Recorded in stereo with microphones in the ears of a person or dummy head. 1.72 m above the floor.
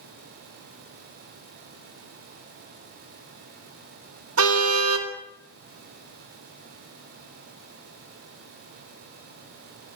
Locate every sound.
4.4 s a car horn: 75° right (ahead or behind), 3.5 m